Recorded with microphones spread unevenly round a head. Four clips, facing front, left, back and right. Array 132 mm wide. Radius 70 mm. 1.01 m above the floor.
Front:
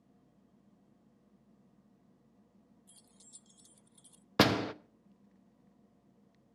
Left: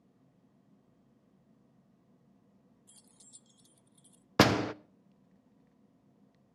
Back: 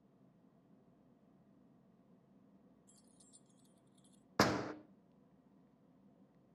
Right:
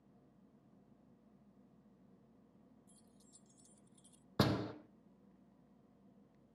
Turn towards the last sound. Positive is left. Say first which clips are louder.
# left 10 dB, front 6 dB
turn(degrees=60)